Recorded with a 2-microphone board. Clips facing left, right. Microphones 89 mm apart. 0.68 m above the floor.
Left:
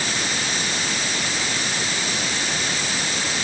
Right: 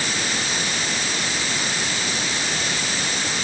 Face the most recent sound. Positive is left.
No sound to turn to.